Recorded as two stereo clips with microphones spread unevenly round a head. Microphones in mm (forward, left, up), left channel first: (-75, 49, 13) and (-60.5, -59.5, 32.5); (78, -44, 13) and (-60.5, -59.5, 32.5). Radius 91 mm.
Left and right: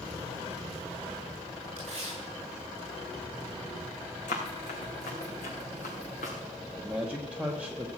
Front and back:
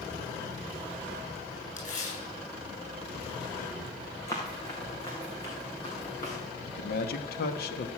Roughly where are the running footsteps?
Left.